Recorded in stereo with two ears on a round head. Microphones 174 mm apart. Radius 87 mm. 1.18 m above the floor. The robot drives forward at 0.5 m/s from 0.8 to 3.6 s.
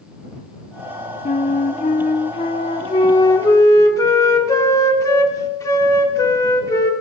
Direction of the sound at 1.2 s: 35° left (ahead or behind).